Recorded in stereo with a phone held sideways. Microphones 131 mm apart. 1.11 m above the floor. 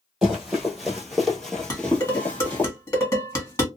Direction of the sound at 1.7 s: 25° left (ahead or behind).